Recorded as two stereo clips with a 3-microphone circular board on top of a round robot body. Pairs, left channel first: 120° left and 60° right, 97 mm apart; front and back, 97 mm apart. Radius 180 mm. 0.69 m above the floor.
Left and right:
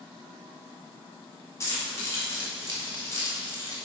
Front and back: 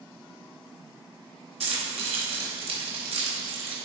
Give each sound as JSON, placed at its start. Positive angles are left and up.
{"t": 1.6, "sound": "keys jangling", "azimuth_deg": -175, "distance_m": 2.0}